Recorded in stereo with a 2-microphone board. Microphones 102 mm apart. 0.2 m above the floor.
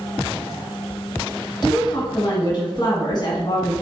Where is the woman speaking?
45° left (ahead or behind), 1.5 m.